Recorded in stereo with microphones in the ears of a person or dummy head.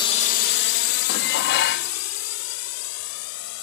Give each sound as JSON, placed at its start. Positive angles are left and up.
{"t": 0.0, "sound": "a drone", "side_deg": 20}
{"t": 1.1, "sound": "dishes clattering", "side_deg": 55}